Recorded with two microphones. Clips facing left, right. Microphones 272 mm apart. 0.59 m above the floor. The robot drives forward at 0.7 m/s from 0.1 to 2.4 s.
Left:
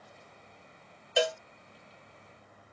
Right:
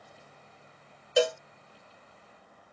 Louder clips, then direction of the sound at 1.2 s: Right 4 dB; 50° right (ahead or behind).